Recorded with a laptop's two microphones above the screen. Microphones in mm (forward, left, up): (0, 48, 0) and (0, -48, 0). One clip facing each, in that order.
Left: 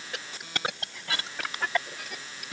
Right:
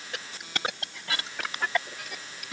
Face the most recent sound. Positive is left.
No sound to turn to.